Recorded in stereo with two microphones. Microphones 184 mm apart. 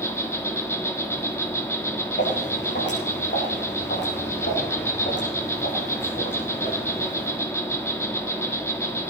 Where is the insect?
15° left (ahead or behind), 1.9 m.